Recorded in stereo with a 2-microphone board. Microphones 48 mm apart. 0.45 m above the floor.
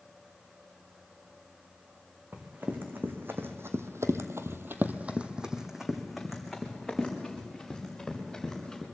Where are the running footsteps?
35° right (ahead or behind), 2.5 m; by 8.8 s 10° left (ahead or behind), 5 m.